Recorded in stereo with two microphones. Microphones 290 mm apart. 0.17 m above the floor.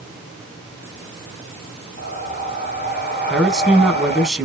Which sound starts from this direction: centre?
A man speaking, at 3.3 s.